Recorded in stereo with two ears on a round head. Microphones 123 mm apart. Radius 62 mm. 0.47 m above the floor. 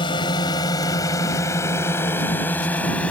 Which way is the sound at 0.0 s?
35° left (ahead or behind).